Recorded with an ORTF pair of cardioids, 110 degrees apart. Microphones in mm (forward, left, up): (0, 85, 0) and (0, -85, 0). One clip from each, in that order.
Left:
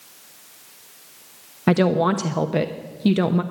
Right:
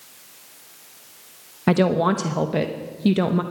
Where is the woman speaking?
10° left, 0.8 m.